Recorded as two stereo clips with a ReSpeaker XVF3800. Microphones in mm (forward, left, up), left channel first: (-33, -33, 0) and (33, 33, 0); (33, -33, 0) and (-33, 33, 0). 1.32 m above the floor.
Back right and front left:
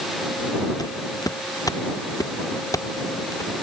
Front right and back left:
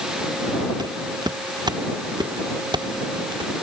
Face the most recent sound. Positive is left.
turn(degrees=170)